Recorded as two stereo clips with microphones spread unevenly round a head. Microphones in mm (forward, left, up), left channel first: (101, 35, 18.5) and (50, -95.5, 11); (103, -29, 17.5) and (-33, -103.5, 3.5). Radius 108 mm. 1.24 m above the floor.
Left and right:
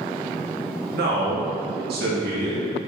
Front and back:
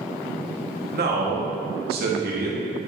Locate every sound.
0.9 s a man speaking: 135° right, 1.9 m